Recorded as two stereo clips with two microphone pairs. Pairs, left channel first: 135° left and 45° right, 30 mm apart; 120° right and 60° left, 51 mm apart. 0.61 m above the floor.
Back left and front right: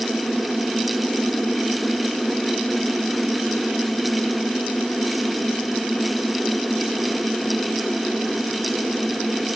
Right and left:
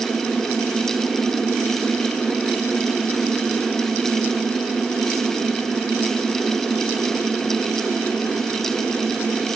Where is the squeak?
No squeak in this recording.